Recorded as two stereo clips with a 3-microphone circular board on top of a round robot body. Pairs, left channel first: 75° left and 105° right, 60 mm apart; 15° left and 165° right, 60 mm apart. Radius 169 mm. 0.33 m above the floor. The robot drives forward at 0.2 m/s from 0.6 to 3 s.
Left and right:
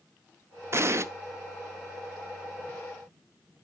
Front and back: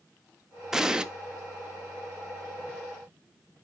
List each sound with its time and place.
0.7 s an explosion: 85° right, 0.7 m; by 1.1 s 90° right, 0.7 m